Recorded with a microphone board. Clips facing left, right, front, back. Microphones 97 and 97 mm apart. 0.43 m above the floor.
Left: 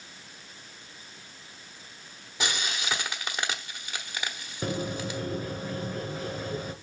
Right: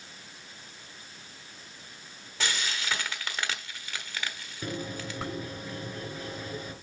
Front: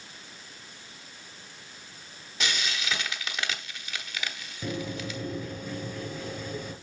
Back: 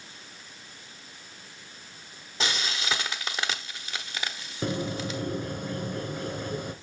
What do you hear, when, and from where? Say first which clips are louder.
2.4 s frying: left 1 dB, back 1 dB; 150° left, 1.2 m
4.6 s a bird: left 4 dB, back 3 dB; 145° left, 1.4 m